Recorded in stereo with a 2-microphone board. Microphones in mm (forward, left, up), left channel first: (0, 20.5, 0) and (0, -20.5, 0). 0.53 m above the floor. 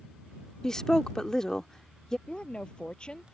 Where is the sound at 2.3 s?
25° left (ahead or behind).